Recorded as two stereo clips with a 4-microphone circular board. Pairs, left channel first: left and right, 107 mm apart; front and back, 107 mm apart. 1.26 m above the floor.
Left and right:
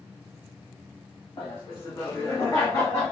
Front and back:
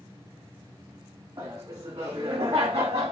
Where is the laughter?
140° left, 2.5 m; by 3.1 s 165° left, 1.8 m.